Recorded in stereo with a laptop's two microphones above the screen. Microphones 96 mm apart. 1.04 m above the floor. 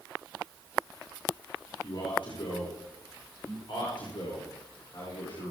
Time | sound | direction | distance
1.8 | a man speaking | 65° left (ahead or behind) | 4 m